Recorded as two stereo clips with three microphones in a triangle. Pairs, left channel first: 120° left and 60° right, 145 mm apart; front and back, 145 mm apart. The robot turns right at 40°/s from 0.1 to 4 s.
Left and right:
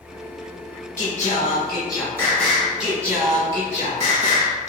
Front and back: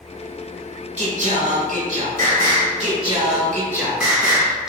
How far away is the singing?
About 1.3 m.